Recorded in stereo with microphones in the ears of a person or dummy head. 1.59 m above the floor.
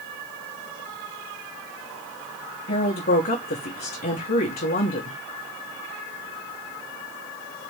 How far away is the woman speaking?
About 1.6 m.